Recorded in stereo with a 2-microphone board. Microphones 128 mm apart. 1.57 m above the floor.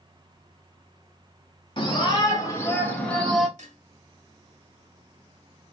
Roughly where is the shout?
Left.